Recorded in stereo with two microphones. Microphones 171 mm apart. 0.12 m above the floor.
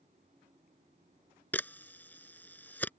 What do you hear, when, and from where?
1.5 s a camera shutter: 10° left (ahead or behind)